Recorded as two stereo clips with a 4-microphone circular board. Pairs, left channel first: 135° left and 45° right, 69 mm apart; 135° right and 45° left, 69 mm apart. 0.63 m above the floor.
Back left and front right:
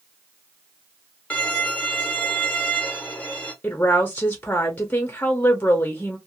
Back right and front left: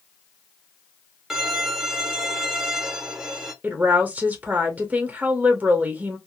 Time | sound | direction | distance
1.3 | a violin | 115° left | 0.7 m
3.6 | a woman speaking | 90° left | 0.6 m